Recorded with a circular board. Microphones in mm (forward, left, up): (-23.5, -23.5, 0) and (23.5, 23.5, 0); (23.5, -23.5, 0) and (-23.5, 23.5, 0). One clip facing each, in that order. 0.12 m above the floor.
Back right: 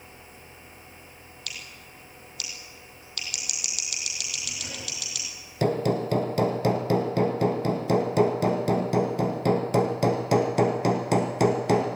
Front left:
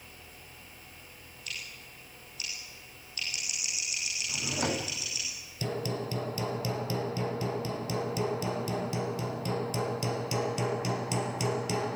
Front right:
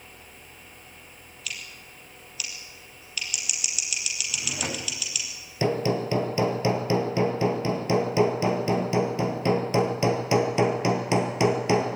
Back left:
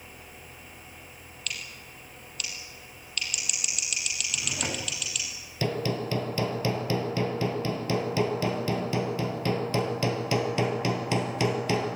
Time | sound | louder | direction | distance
1.5 | scissors | even, even | 130° right | 4.5 m
4.3 | a drawer | front left 7 dB, front right 1 dB | 45° left | 3.5 m
5.6 | hammering | back right 9 dB, front right 4 dB | 115° right | 2.0 m